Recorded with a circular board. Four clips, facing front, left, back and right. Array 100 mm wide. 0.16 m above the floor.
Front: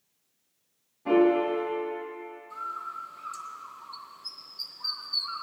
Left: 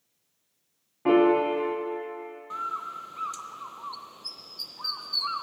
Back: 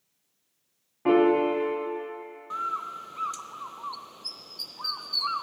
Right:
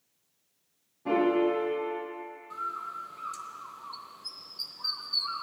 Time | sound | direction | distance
1.1 | a piano | 135° left | 4.5 m
2.5 | a bird | 155° left | 0.6 m